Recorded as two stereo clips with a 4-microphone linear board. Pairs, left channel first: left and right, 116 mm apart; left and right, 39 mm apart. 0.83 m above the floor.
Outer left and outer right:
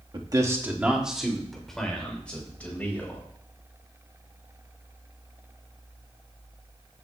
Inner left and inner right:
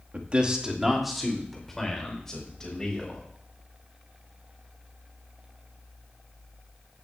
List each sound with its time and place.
0.1 s a man speaking: 45° right (ahead or behind), 1.2 m; by 3.2 s 15° left (ahead or behind), 5 m